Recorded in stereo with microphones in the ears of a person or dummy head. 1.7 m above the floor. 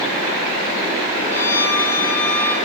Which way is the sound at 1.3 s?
15° left (ahead or behind).